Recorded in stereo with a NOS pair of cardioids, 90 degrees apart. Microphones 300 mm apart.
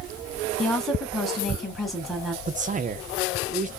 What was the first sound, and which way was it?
A woman speaking, straight ahead.